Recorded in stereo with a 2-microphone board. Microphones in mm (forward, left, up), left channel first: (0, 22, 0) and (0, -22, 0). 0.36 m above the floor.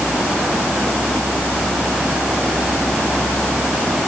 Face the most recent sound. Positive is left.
No sound to turn to.